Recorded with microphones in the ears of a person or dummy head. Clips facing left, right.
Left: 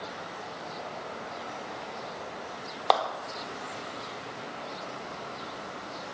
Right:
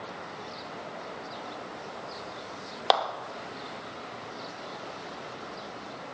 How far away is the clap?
About 1.0 m.